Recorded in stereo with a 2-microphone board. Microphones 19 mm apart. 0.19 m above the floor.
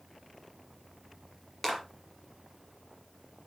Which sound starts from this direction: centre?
A clap, at 1.6 s.